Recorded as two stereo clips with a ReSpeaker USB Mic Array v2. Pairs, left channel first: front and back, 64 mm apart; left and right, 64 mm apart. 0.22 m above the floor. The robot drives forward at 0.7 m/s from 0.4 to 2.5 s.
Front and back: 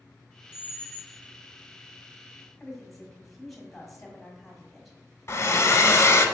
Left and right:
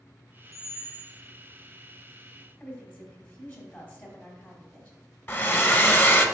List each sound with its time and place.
0.5 s a squeak: 55° right, 0.9 m; by 1.2 s 85° right, 0.8 m
2.6 s a woman speaking: 80° left, 1.4 m
5.3 s a hair dryer: 40° left, 0.6 m